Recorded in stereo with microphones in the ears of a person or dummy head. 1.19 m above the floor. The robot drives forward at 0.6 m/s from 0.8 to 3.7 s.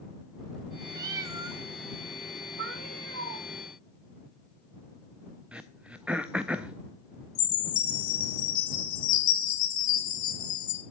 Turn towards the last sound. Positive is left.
turn(degrees=45)  # may be behind; listen again after turning